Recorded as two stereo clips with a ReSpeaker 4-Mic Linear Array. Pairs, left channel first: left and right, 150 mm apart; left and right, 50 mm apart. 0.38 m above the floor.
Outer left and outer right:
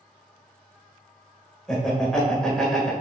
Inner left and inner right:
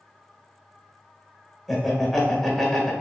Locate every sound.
1.7 s laughter: 5° left (ahead or behind), 1.2 m